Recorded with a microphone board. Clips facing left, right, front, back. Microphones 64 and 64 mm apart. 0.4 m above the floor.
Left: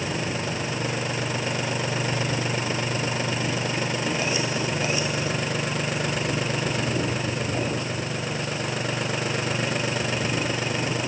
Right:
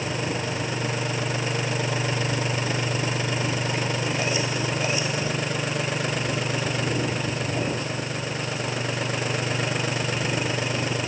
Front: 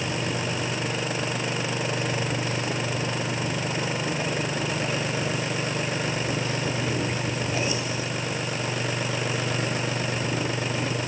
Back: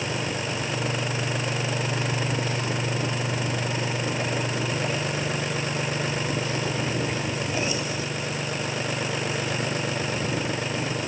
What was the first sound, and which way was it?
Only background noise.